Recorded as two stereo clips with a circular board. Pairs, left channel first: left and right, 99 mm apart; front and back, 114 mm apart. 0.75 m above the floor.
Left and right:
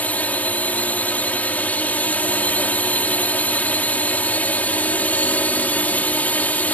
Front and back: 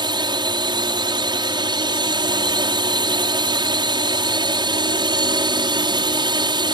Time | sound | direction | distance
0.0 | a drone | 160° left | ?